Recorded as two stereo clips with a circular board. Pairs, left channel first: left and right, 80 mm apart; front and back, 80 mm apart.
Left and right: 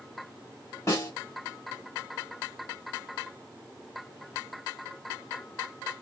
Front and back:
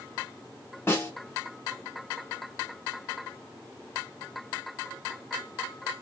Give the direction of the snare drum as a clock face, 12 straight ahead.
10 o'clock.